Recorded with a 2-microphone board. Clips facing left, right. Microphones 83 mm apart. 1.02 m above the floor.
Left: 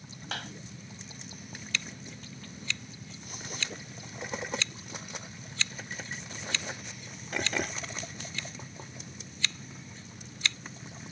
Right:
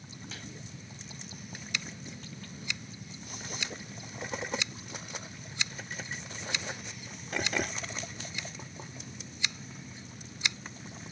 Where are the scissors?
15° right (ahead or behind).